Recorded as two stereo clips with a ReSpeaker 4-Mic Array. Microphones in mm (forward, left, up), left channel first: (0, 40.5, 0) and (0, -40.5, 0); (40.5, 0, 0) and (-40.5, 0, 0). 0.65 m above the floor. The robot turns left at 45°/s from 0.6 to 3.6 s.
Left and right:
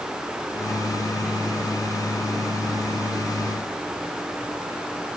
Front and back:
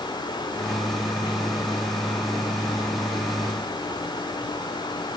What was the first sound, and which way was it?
Only background noise.